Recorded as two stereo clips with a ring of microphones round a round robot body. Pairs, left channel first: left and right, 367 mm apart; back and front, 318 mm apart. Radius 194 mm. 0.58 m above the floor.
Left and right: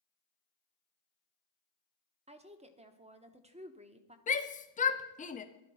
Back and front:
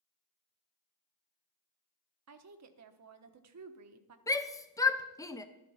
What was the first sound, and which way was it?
A woman speaking, 20° right.